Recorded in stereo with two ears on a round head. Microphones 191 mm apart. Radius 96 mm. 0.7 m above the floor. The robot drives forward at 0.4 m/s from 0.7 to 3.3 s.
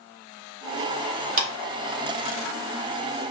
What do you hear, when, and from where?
1.4 s a clap: 40° right (ahead or behind), 1.6 m